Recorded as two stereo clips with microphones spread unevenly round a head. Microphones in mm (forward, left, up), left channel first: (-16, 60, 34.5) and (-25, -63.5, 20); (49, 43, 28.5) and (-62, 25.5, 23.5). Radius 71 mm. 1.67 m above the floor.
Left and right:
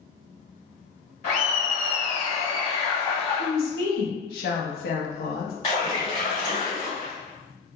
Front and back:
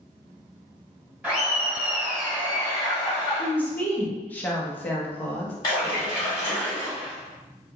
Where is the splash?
45° left, 1.4 m.